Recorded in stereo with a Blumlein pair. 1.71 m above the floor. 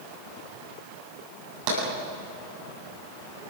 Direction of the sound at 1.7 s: 45° right.